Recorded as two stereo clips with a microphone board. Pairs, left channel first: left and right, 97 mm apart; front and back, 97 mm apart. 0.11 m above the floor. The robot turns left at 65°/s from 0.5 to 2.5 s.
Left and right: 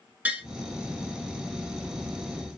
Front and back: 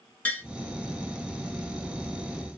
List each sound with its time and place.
0.2 s tapping: 45° right, 1.1 m